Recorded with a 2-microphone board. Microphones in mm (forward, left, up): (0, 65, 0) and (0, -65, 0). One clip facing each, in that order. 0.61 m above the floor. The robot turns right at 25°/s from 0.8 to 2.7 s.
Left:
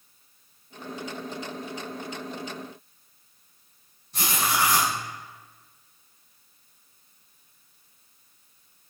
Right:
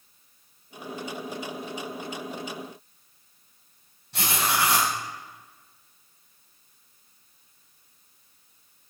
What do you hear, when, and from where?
4.1 s writing: 75° right (ahead or behind), 4.5 m